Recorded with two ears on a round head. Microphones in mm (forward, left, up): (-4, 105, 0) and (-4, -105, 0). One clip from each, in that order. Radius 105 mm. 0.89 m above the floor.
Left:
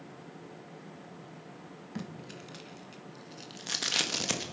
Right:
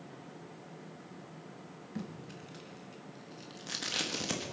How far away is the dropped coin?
No dropped coin in this recording.